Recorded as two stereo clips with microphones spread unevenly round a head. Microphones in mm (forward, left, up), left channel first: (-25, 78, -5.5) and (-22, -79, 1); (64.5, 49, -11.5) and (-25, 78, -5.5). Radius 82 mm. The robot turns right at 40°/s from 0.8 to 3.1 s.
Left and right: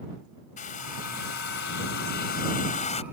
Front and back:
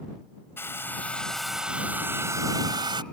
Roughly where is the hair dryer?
Ahead left.